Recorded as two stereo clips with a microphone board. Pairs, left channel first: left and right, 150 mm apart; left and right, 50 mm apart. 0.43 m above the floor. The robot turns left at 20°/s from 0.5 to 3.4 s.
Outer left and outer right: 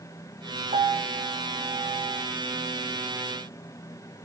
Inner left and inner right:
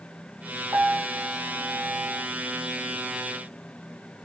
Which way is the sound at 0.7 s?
110° right.